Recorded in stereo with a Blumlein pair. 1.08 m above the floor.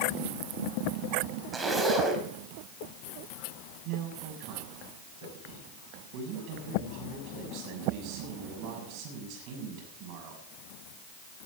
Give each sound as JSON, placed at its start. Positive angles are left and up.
{"t": 1.5, "sound": "a zipper", "azimuth_deg": -10, "distance_m": 3.5}
{"t": 3.9, "sound": "a man speaking", "azimuth_deg": -40, "distance_m": 7.0}